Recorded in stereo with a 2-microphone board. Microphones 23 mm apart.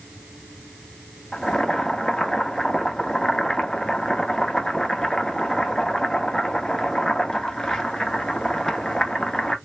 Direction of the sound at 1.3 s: 30° left (ahead or behind).